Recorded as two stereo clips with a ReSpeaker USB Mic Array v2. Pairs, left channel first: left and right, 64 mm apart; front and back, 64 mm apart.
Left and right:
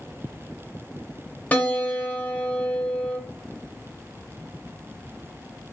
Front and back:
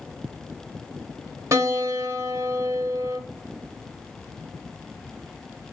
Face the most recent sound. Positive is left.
turn(degrees=150)